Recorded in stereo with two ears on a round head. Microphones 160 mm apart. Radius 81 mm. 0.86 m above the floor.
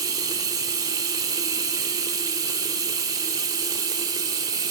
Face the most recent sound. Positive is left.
turn(degrees=-25)  # may be behind; listen again after turning